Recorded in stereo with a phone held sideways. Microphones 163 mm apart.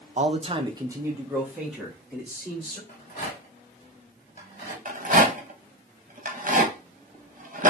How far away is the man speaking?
About 0.6 m.